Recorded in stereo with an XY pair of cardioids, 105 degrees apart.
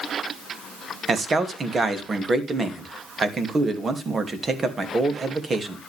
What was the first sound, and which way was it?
A man speaking, 35° right.